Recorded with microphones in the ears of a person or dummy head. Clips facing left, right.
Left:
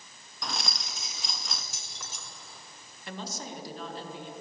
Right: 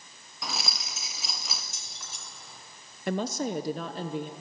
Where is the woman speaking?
50° right (ahead or behind), 0.9 m.